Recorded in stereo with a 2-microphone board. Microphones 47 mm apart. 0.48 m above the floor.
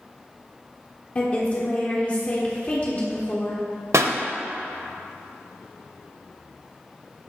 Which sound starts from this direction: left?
A woman speaking, at 1.1 s.